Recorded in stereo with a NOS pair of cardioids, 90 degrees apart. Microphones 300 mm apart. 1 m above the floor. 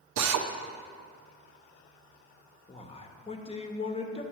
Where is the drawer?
I don't hear a drawer.